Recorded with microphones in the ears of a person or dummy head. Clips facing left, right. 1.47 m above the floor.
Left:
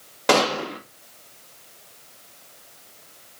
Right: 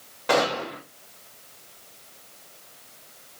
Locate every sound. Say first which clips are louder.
0.3 s a gunshot: left 3 dB; 75° left (ahead or behind), 1.6 m